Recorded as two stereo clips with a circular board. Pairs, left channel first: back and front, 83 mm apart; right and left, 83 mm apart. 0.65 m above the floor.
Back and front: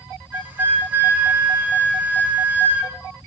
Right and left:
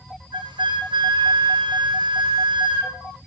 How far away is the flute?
About 1.9 m.